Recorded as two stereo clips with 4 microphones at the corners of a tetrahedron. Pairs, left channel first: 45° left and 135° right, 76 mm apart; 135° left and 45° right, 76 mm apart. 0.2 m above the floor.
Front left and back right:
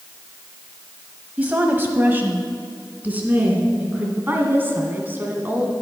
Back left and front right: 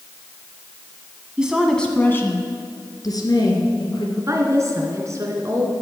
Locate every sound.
1.4 s a woman speaking: 100° right, 1.1 m; by 4.1 s 155° left, 3 m
4.2 s a woman speaking: 80° right, 2.0 m